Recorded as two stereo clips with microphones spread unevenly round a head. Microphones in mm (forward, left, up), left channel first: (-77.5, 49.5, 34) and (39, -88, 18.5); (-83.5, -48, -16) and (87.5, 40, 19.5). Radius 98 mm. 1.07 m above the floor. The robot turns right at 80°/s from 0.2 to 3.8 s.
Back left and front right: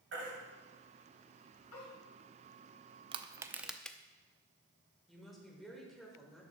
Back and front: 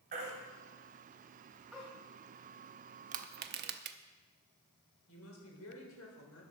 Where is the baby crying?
15° right, 3 m; by 1.9 s 120° left, 3 m.